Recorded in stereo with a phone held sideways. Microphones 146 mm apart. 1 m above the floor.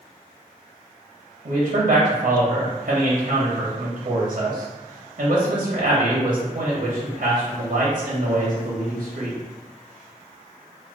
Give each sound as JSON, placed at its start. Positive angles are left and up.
{"t": 1.4, "sound": "a man speaking", "side_deg": -70, "distance_m": 0.7}